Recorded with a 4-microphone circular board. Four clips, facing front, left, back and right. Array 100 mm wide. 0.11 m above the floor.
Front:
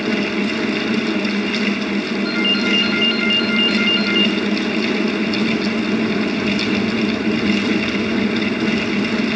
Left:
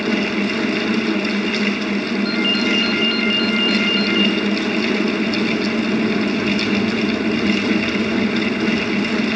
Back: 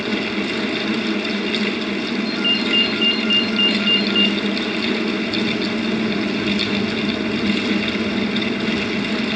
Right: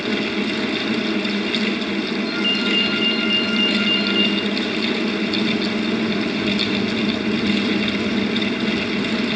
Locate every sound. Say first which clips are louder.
2.2 s a ringtone: left 3 dB, front 3 dB; 30° left, 2.5 m